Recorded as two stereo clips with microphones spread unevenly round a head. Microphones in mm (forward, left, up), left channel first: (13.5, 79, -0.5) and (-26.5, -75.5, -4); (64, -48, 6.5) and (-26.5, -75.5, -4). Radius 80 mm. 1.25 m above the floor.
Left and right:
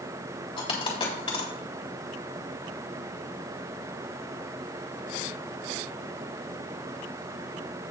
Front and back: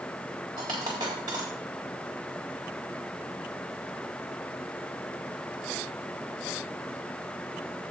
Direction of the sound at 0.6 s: 130° left.